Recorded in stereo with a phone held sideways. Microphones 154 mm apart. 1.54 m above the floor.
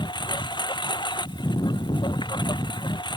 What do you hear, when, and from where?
0.0 s a lawn mower: 30° left (ahead or behind)